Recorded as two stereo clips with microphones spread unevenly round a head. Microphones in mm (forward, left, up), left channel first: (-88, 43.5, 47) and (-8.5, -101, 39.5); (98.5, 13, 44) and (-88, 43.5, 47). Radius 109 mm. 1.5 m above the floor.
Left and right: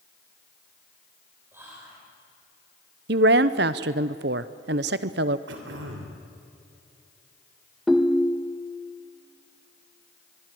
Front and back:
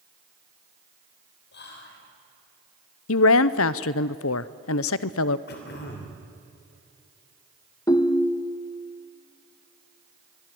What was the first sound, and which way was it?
Whispering, 20° left.